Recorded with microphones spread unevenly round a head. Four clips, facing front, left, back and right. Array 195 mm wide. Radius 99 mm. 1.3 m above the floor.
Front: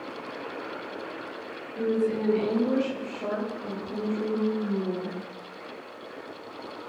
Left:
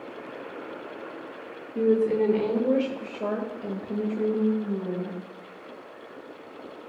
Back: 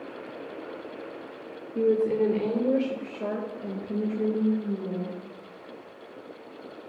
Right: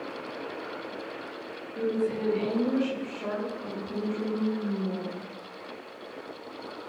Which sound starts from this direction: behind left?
A woman speaking, at 1.8 s.